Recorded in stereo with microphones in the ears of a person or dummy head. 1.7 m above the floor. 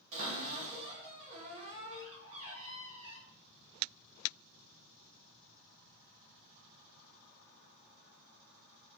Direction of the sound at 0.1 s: 35° right (ahead or behind).